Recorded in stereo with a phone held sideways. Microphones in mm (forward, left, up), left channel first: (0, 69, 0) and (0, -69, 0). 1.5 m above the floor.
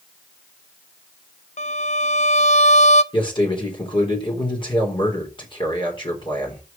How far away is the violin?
About 0.6 m.